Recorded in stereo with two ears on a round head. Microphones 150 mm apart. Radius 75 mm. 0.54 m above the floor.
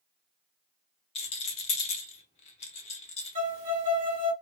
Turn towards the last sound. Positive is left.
turn(degrees=-40)  # may be behind; listen again after turning